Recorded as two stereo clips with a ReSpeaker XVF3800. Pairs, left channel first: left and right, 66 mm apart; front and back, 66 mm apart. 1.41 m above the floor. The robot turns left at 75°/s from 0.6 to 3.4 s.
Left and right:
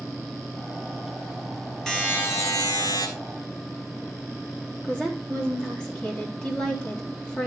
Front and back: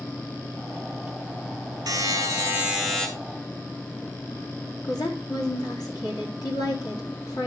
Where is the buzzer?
170° left, 3.5 m; by 3.1 s 80° left, 3.5 m.